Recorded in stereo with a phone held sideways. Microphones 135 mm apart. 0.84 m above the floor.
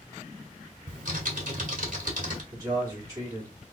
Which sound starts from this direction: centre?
A man speaking, at 2.5 s.